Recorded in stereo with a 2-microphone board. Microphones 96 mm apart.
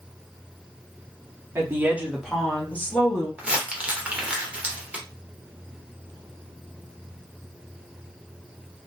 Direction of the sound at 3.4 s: 10° right (ahead or behind).